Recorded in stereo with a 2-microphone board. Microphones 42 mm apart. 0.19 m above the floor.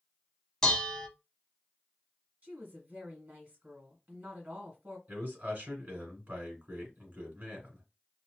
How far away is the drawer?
I don't hear a drawer.